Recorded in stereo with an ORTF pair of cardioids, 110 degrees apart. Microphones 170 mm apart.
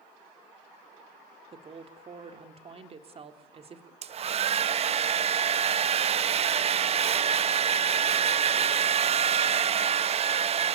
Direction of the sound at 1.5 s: 35° right.